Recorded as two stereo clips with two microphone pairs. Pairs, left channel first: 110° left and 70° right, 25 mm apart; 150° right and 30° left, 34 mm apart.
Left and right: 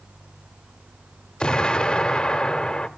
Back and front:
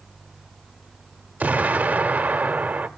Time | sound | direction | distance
1.4 | an explosion | 65° left | 0.7 m